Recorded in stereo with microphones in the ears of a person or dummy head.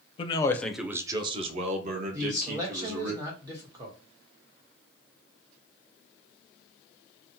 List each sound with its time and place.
0.2 s a man speaking: 30° left (ahead or behind), 0.6 m; by 3.1 s 60° right (ahead or behind), 1.7 m
2.1 s a man speaking: 25° right (ahead or behind), 1.2 m